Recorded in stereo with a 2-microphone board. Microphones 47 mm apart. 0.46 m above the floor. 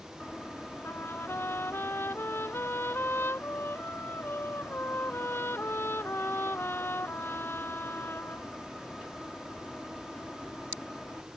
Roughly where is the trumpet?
Left.